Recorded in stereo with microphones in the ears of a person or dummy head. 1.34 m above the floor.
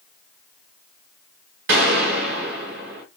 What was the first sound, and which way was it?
A gunshot, 45° right (ahead or behind).